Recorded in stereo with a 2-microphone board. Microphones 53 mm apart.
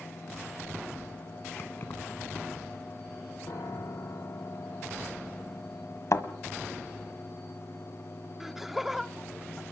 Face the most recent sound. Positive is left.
turn(degrees=-5)  # may be behind; listen again after turning